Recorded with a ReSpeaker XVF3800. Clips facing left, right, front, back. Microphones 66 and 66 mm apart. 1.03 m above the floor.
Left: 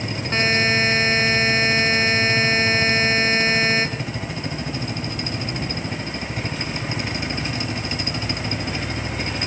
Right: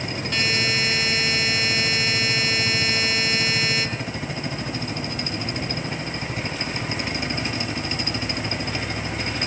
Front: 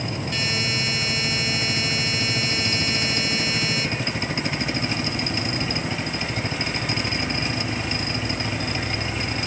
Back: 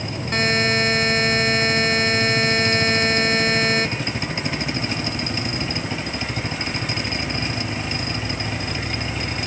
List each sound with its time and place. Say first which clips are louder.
0.3 s a buzzer: left 5 dB, back 10 dB; 145° left, 2 m